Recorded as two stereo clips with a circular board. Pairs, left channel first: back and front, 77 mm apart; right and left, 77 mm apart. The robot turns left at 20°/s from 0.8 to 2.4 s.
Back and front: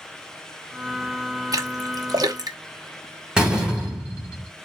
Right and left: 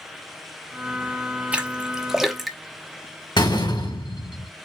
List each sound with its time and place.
1.5 s a splash: 20° left, 0.9 m; by 2.6 s straight ahead, 0.9 m
3.4 s a door slam: 80° right, 2.5 m